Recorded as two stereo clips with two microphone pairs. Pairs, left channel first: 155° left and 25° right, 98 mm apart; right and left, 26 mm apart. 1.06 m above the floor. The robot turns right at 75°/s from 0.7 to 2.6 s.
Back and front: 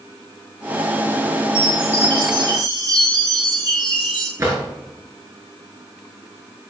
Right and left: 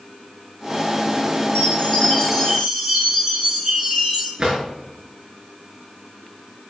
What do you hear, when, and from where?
1.6 s a chime: 55° right, 6.5 m; by 4.3 s 25° left, 6.5 m
4.4 s a drawer: 30° left, 6 m